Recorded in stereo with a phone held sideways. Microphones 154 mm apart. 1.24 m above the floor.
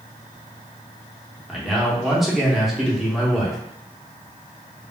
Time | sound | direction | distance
1.5 | a man speaking | centre (ahead or behind) | 0.8 m